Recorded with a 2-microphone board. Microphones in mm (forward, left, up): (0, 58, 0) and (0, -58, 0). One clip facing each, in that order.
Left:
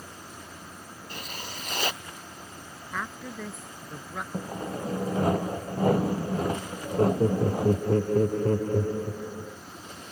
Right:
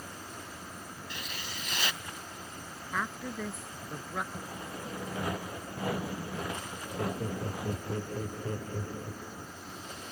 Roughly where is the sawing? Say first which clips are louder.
Left 8 dB; left.